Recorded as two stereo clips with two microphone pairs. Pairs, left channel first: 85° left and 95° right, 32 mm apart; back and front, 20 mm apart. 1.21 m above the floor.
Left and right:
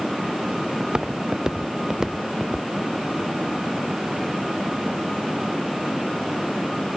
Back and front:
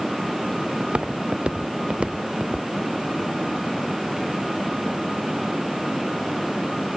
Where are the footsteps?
30° right; by 7.0 s 15° right.